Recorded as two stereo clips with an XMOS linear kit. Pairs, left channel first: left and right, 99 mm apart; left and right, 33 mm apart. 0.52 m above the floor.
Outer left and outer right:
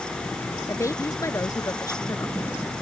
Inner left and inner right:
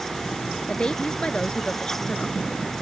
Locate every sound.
0.7 s a woman speaking: 30° left (ahead or behind); by 2.6 s 35° left (ahead or behind)